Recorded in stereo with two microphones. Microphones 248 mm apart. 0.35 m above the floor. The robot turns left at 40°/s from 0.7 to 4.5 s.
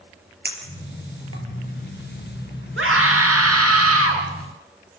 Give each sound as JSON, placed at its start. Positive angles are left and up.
{"t": 0.5, "sound": "a clink", "side_deg": -40, "distance_m": 5.0}
{"t": 2.8, "sound": "a scream", "azimuth_deg": -55, "distance_m": 6.0}